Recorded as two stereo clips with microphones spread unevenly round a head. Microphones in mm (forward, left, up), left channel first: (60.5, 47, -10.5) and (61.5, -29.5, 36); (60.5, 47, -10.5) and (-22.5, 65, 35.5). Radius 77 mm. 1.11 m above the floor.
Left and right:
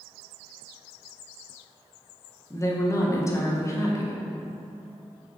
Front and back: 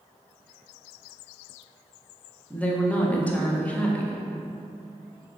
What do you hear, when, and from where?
2.5 s a woman speaking: 55° left, 0.6 m